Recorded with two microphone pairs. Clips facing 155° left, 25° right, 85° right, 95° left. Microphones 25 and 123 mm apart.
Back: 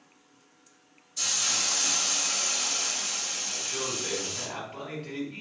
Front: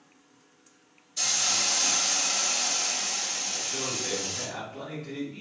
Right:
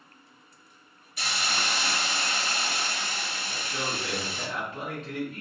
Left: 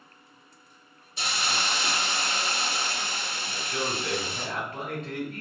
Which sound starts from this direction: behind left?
A man speaking, at 3.5 s.